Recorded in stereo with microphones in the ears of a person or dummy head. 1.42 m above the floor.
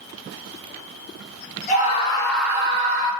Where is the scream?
40° left (ahead or behind), 1.1 m; by 3.1 s 50° right (ahead or behind), 1.0 m.